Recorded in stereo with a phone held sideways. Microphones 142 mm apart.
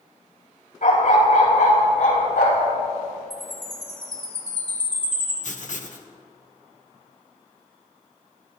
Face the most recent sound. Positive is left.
turn(degrees=60)  # may be behind; listen again after turning